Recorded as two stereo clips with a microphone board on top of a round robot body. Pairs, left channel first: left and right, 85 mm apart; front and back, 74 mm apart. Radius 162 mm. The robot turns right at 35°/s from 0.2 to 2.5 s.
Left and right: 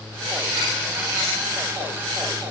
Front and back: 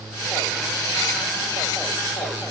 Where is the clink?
No clink in this recording.